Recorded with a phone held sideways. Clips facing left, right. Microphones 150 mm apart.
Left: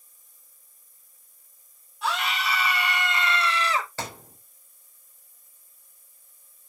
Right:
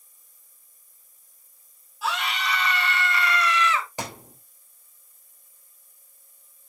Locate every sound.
2.0 s a scream: 5° right (ahead or behind), 2.5 m; by 3.9 s 40° left (ahead or behind), 2.0 m
4.0 s a thud: 15° right (ahead or behind), 3 m